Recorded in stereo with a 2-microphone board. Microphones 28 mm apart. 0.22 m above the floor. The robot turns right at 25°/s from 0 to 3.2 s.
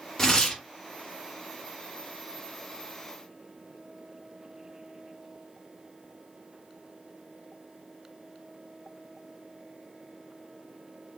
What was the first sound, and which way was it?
Tearing paper, 20° left (ahead or behind).